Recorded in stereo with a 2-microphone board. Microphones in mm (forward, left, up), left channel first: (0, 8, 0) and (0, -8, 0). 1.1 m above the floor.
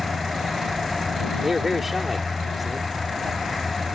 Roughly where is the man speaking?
Centre.